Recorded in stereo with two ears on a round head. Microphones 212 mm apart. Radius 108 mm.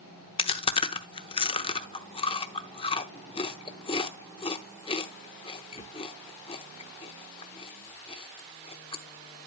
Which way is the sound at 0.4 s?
25° left (ahead or behind).